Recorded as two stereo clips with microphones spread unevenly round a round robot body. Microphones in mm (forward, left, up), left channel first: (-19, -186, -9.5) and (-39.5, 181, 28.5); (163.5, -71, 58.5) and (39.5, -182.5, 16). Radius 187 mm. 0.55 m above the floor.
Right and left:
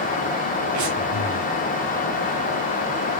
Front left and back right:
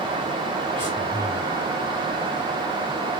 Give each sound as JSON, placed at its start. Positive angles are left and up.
{"t": 0.8, "sound": "breathing", "azimuth_deg": 130, "distance_m": 1.8}